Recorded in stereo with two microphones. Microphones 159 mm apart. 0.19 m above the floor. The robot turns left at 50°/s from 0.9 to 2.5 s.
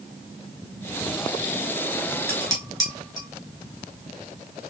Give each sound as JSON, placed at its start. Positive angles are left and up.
{"t": 2.3, "sound": "dishes clattering", "side_deg": 10, "distance_m": 1.8}